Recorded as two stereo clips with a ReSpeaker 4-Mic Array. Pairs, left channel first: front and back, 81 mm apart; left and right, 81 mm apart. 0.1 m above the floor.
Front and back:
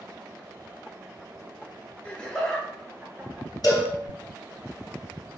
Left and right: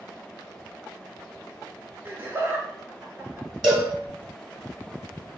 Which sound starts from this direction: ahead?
A cowbell, at 3.6 s.